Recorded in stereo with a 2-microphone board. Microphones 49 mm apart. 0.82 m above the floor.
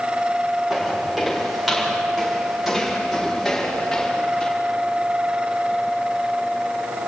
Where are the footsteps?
10° right (ahead or behind), 7.5 m; by 4.5 s 10° left (ahead or behind), 6.5 m.